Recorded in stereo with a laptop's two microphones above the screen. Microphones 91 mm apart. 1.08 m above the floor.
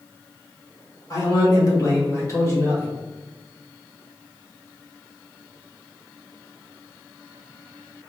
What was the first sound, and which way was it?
A man speaking, 35° left (ahead or behind).